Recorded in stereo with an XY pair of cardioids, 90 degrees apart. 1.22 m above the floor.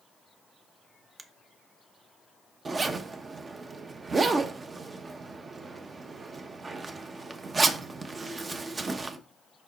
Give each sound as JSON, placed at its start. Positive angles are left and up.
{"t": 1.2, "sound": "a finger snap", "azimuth_deg": -35, "distance_m": 0.8}
{"t": 2.6, "sound": "a zipper", "azimuth_deg": -35, "distance_m": 0.8}